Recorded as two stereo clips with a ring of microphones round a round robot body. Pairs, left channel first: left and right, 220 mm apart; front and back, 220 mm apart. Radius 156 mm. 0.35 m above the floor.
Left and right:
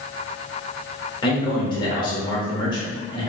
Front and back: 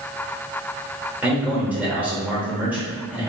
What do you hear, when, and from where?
1.2 s a man speaking: 110° left, 0.9 m